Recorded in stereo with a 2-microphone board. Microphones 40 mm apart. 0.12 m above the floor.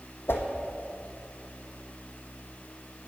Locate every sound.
0.3 s a whoosh: 65° left (ahead or behind), 1.6 m